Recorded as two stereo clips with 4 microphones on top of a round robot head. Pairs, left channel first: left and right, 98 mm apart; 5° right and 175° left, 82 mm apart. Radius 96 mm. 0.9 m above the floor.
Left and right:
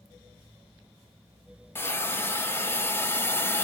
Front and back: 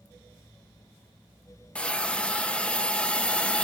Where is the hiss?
55° left, 0.9 m.